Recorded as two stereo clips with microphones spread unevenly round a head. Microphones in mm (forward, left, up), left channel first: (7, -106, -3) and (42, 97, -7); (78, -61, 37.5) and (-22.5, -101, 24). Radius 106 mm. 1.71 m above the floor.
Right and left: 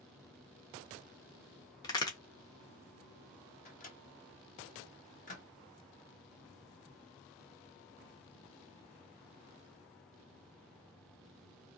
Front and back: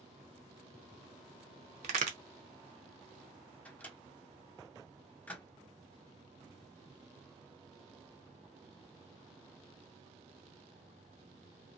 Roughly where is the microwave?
Ahead right.